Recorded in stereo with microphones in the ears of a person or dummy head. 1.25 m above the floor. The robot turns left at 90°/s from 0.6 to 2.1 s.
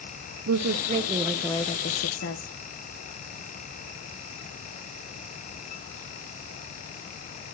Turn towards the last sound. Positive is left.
turn(degrees=110)